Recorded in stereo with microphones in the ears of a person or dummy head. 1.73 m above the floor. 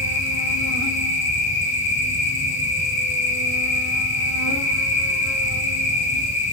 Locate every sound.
0.0 s an insect: 80° left, 3.5 m